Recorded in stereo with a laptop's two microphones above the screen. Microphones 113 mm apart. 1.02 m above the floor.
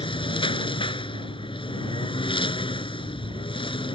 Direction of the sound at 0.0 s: 50° left (ahead or behind).